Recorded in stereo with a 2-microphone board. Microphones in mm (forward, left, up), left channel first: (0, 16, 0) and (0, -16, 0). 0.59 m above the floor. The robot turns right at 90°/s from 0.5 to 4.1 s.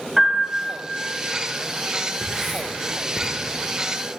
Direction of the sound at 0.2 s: 15° right (ahead or behind).